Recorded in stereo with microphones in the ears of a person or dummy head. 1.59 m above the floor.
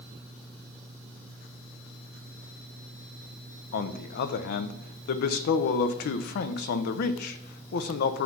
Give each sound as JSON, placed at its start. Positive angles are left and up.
{"t": 3.7, "sound": "a man speaking", "side_deg": 60, "distance_m": 0.6}